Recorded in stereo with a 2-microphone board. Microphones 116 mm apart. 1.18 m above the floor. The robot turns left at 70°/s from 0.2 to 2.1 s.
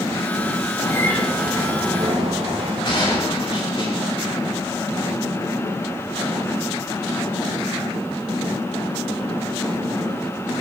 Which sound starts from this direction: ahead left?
A bird, at 0.8 s.